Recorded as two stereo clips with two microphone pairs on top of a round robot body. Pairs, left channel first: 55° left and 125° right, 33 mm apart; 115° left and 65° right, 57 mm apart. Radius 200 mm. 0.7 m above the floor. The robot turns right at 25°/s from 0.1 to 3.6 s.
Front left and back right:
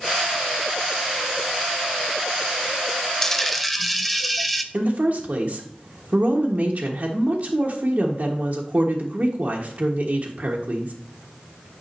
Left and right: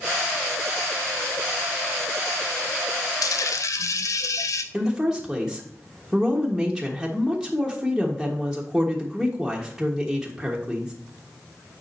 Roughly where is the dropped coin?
Behind left.